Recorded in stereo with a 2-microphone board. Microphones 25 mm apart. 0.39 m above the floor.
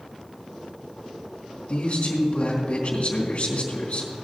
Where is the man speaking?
50° left (ahead or behind), 3 m.